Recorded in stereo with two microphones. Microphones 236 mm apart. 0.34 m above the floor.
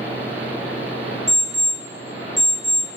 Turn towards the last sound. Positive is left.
turn(degrees=50)  # may be behind; listen again after turning